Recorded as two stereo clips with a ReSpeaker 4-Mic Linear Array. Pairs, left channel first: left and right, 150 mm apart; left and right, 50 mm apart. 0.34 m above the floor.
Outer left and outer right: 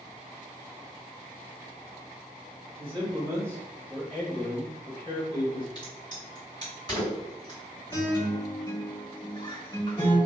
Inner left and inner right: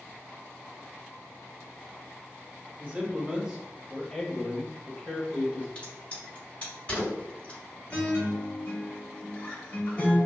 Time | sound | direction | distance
2.8 | a man speaking | 35° right (ahead or behind) | 1.0 m
5.8 | a crack | 30° left (ahead or behind) | 1.9 m
7.9 | a guitar | 35° left (ahead or behind) | 1.5 m